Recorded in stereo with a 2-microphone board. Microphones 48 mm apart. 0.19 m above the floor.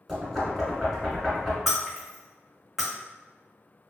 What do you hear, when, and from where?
0.1 s knocking: 10° right (ahead or behind), 1.9 m
1.7 s breaking glass: 10° right (ahead or behind), 1.2 m